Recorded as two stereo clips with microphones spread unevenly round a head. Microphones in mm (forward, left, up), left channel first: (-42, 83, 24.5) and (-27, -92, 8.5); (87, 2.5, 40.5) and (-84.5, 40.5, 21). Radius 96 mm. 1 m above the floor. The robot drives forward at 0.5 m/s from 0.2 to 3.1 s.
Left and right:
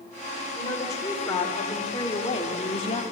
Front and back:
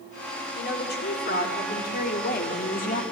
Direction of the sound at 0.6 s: 20° left.